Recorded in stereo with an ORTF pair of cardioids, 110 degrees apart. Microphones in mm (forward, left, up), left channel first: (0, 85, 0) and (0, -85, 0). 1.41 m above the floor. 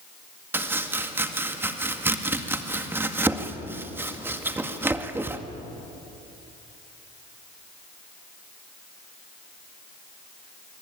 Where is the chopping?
15° right, 1.9 m.